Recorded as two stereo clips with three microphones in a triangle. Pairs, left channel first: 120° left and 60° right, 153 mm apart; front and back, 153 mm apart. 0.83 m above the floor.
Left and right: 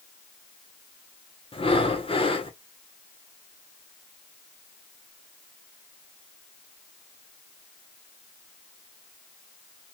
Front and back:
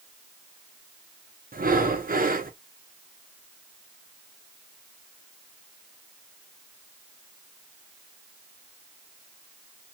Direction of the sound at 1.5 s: 170° left.